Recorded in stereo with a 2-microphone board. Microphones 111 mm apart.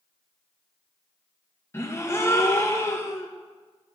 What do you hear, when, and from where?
1.7 s a gasp: 25° left (ahead or behind), 1.4 m